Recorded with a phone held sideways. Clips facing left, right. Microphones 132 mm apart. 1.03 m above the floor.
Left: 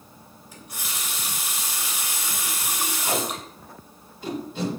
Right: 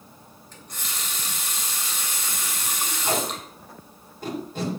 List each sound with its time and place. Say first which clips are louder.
0.5 s a running tap: left 1 dB; 10° left (ahead or behind), 2.5 m
3.0 s tape being pulled: right 2 dB; 50° right (ahead or behind), 6.5 m